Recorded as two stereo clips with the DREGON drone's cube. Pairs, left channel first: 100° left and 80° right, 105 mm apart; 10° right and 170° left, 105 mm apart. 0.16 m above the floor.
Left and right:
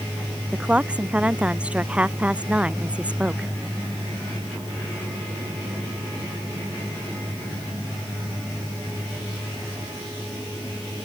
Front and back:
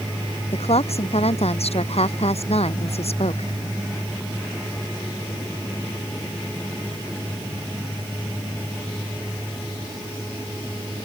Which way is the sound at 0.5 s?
Straight ahead.